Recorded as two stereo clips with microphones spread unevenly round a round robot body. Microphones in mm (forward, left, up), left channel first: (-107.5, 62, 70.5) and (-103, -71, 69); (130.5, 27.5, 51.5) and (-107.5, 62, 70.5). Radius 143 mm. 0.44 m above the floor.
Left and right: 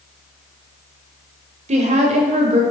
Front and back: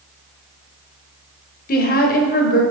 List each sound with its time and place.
1.7 s a woman speaking: 55° right, 2.0 m